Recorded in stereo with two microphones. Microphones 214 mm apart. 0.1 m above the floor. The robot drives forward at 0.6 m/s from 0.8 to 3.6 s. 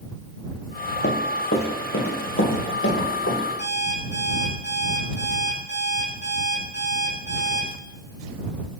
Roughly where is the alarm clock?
Left.